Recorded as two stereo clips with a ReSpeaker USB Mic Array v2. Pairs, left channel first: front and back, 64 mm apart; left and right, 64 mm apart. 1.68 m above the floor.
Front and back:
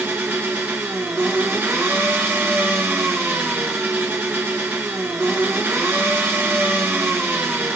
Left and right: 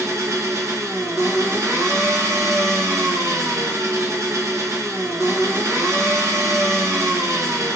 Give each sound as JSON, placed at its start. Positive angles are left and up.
{"t": 0.0, "sound": "an engine running", "azimuth_deg": -125, "distance_m": 1.8}